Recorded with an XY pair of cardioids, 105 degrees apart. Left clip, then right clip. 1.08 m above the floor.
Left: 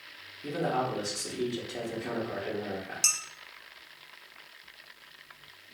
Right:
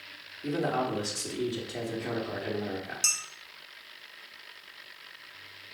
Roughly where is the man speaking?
Ahead.